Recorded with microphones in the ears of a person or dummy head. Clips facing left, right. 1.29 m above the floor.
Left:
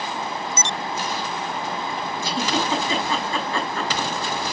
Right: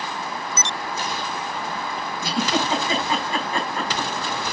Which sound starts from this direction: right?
A giggle, at 2.2 s.